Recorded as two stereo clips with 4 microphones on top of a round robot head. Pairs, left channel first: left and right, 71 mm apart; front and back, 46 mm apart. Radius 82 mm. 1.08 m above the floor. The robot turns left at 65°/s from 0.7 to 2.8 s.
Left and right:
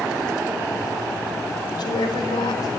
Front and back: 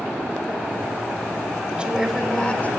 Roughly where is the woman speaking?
Behind left.